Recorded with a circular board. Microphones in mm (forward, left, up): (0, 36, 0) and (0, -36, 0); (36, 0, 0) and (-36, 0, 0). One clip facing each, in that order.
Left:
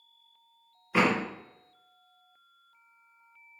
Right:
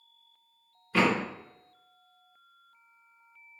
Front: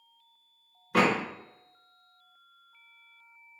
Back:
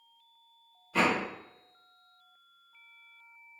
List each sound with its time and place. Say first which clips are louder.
0.9 s a door slam: even, front 3 dB; 15° left, 0.9 m